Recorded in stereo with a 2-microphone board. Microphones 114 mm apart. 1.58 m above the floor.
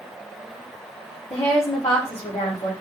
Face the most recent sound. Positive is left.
turn(degrees=55)  # may be behind; listen again after turning